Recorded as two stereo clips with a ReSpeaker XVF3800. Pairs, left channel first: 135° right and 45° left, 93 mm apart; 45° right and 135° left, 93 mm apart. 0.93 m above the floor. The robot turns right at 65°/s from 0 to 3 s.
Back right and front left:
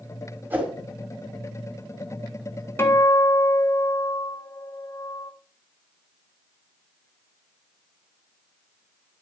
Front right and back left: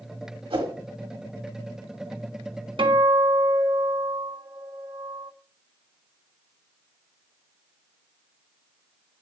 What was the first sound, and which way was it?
A whoosh, 115° left.